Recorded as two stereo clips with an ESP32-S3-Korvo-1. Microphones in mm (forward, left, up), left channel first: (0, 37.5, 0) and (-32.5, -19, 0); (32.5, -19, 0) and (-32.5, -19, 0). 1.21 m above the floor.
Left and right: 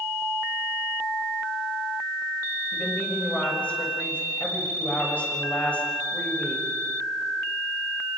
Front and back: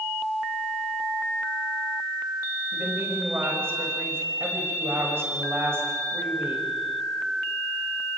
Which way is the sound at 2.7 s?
130° left.